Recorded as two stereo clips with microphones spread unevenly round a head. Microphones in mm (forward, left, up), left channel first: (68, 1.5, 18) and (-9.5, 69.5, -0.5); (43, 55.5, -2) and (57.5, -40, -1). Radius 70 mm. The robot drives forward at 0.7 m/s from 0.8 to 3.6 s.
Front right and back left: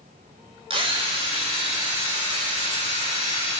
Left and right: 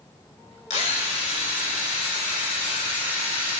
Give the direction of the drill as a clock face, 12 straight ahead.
8 o'clock.